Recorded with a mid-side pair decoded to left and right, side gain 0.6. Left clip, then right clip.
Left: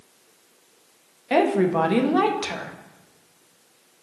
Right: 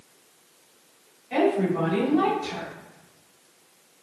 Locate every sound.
1.3 s a woman speaking: 65° left, 1.0 m